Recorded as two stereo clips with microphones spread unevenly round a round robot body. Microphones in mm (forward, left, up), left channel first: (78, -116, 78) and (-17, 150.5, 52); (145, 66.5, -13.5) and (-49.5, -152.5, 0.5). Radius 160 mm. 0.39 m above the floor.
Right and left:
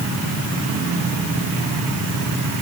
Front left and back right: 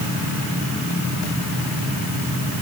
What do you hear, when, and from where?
Only background noise.